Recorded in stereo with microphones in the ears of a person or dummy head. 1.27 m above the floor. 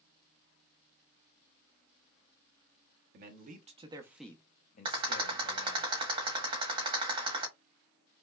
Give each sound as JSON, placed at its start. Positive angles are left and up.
{"t": 3.1, "sound": "a man speaking", "side_deg": -55, "distance_m": 0.8}
{"t": 4.8, "sound": "a rattle", "side_deg": -30, "distance_m": 1.1}